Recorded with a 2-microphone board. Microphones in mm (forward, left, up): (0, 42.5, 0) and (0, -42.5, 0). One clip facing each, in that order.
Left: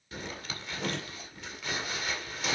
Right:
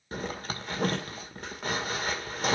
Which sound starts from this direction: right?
A zipper, at 0.1 s.